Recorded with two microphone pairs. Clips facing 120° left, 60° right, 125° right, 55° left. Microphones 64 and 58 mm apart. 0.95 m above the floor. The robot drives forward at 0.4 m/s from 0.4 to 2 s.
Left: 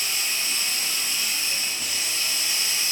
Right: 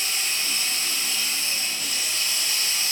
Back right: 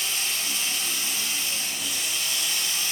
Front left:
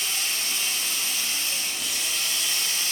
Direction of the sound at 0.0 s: 40° left.